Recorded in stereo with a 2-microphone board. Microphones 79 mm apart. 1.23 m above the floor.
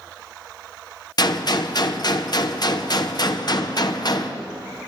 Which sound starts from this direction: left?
A gunshot, at 1.2 s.